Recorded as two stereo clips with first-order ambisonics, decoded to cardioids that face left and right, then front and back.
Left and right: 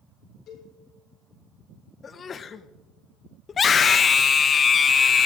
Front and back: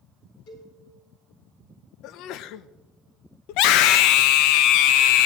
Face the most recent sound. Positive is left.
turn(degrees=25)